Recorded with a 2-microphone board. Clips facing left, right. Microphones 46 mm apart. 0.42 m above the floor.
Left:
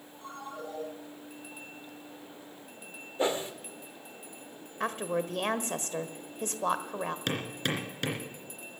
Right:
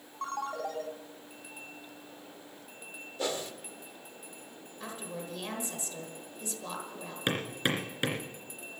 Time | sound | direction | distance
0.2 | a ringtone | 75° right (ahead or behind) | 2 m
3.2 | a whoosh | 25° left (ahead or behind) | 1.1 m
4.8 | a woman speaking | 55° left (ahead or behind) | 1.3 m
7.3 | hammering | 15° right (ahead or behind) | 2.5 m